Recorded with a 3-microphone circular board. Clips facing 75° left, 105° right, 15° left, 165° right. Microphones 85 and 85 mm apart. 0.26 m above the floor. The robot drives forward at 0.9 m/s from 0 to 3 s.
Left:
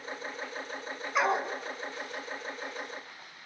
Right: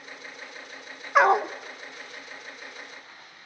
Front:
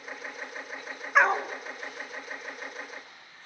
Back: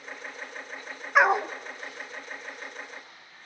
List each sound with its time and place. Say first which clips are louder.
1.1 s a dog barking: right 9 dB, back 2 dB; 80° right, 0.7 m; by 1.5 s 110° right, 0.7 m